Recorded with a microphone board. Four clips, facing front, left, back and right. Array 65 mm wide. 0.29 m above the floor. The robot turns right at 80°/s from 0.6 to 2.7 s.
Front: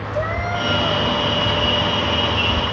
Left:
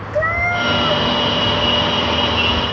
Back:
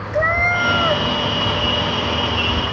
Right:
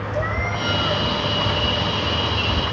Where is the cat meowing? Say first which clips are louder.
Left 8 dB, back 6 dB; 140° left, 1.2 m; by 1.0 s 175° left, 1.2 m.